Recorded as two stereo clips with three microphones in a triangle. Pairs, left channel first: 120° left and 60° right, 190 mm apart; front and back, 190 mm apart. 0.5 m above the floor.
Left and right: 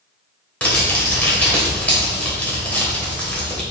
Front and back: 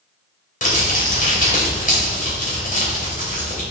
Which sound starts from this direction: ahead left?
Crumpling, at 0.6 s.